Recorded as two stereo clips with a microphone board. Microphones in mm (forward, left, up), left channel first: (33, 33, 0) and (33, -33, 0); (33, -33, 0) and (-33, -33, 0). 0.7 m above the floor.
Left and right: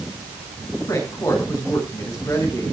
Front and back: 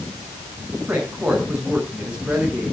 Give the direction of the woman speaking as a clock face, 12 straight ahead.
8 o'clock.